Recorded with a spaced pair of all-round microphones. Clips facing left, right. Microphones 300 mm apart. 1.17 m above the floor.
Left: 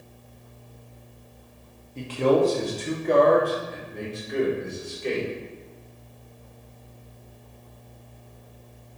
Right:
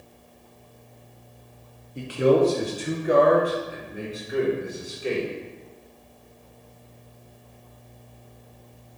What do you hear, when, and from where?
1.9 s a man speaking: 15° right (ahead or behind), 1.8 m; by 5.3 s 5° right (ahead or behind), 3.5 m